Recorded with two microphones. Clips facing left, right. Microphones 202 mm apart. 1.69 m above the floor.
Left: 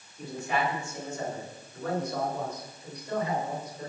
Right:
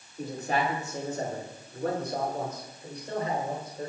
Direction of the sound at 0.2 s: 40° right (ahead or behind).